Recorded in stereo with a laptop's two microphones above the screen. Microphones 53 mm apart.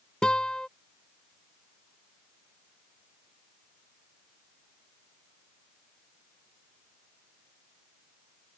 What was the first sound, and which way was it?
A guitar, 15° left (ahead or behind).